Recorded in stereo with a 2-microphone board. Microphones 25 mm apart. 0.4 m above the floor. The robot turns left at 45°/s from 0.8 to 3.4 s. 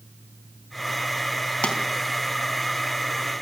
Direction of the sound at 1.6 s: 45° left (ahead or behind).